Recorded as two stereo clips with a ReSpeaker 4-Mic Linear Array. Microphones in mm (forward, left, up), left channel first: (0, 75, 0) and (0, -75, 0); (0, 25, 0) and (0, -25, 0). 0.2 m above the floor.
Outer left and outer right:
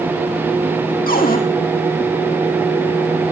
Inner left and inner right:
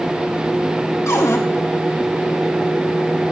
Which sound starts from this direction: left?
A cupboard door, at 1.1 s.